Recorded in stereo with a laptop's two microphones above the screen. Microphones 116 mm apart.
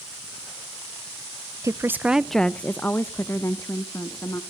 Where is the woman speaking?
25° right (ahead or behind), 0.6 m; by 4.4 s 25° left (ahead or behind), 2 m.